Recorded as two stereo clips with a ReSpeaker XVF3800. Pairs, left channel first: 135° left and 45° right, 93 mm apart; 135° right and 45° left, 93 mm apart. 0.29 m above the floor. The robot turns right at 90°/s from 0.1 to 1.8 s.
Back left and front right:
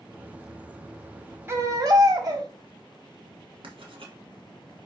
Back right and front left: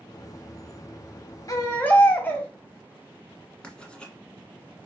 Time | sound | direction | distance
1.5 | a baby crying | 100° right | 1.1 m
3.6 | writing | 55° right | 1.2 m